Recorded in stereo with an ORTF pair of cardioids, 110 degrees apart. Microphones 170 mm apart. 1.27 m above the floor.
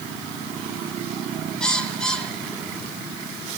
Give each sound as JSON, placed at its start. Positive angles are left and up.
{"t": 1.6, "sound": "a bird", "azimuth_deg": 5, "distance_m": 1.9}